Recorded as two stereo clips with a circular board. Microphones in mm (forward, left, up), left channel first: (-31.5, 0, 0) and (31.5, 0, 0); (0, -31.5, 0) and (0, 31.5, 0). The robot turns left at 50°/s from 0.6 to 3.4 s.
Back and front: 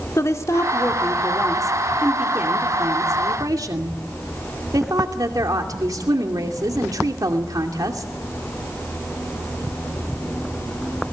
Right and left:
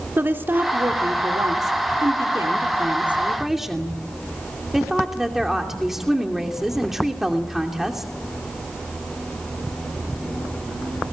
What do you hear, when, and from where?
0.2 s a woman speaking: 145° left, 2.5 m; by 8.1 s 5° left, 2.5 m